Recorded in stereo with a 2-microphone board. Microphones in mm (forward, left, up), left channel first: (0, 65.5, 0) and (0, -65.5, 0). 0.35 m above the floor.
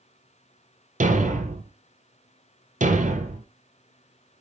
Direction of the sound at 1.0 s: 80° right.